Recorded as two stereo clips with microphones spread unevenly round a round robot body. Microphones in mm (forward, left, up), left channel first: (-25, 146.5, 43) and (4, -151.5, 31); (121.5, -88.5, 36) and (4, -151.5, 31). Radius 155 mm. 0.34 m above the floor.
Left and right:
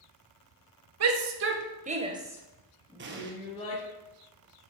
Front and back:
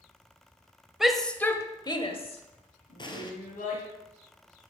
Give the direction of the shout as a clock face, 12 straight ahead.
2 o'clock.